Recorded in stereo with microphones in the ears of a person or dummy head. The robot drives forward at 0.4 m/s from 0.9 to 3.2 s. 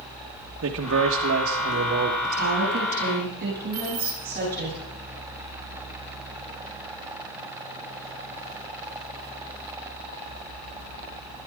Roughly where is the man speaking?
Right.